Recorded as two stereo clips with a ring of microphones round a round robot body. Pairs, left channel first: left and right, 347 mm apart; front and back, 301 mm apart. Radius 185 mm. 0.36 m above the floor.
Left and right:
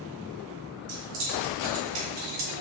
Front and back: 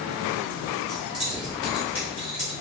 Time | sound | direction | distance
0.9 | keys jangling | 90° right | 1.7 m